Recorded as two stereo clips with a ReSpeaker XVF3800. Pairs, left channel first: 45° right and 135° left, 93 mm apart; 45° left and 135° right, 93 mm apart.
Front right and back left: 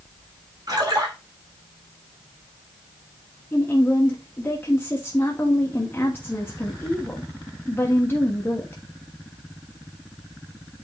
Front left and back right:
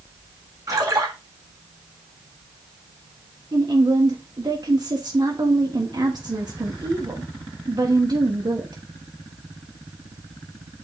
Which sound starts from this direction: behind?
A splash, at 0.7 s.